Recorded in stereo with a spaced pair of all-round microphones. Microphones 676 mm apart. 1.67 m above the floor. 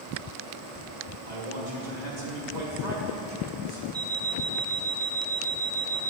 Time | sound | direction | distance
1.3 | a man speaking | 80° right | 2.5 m
3.9 | an alarm clock | 30° right (ahead or behind) | 1.2 m